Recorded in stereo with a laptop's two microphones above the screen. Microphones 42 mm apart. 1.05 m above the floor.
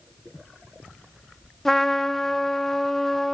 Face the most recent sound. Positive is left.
turn(degrees=10)  # may be behind; listen again after turning